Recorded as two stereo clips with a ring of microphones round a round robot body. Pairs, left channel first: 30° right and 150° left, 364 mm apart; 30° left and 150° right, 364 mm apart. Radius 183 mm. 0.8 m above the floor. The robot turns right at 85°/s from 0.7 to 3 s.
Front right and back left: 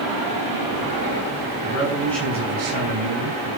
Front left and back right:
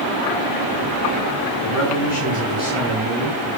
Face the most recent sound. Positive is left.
turn(degrees=130)